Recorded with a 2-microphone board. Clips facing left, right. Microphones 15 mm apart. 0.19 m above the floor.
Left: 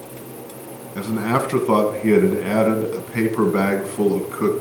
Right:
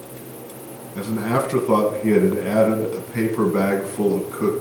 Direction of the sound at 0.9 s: 25° left (ahead or behind).